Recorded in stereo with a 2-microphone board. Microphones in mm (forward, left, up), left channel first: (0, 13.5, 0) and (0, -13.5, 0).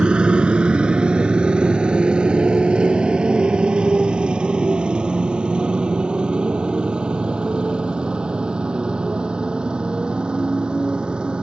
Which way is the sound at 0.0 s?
40° right (ahead or behind).